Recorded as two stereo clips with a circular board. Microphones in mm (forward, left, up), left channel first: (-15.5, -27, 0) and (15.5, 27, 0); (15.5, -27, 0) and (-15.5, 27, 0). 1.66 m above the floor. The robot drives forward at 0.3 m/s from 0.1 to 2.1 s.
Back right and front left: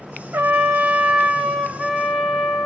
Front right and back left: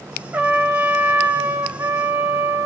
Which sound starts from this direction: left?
A trumpet, at 0.3 s.